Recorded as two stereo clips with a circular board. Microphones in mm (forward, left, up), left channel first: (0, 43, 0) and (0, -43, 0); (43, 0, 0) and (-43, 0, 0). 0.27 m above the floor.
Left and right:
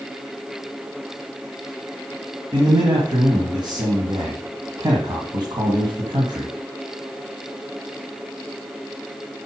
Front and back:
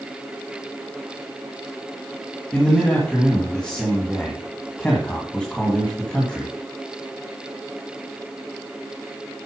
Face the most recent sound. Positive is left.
turn(degrees=-75)